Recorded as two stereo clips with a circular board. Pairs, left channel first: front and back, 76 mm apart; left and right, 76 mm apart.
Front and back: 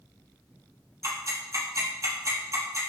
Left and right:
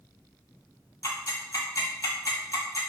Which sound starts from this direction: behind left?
Ticking, at 1.0 s.